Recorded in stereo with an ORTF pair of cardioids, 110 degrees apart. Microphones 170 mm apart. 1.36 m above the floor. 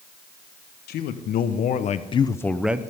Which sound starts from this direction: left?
A man speaking, at 0.9 s.